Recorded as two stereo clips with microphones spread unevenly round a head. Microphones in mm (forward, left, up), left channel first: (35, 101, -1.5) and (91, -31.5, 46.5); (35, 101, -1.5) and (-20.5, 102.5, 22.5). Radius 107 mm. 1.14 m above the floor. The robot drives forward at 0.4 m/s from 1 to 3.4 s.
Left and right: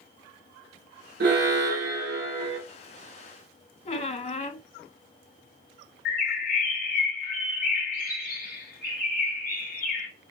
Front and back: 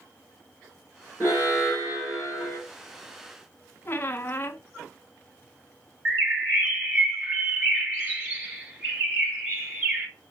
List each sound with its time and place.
1.2 s an alarm: 85° right, 2.5 m; by 2.6 s 105° right, 2.5 m
3.9 s a squeak: 70° left, 0.7 m
6.0 s a bird: 120° left, 2.5 m